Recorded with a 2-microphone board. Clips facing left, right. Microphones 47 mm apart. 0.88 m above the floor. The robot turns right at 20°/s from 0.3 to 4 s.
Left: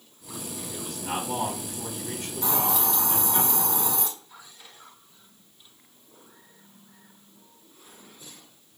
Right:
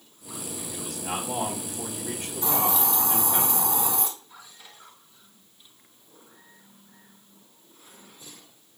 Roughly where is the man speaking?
Behind.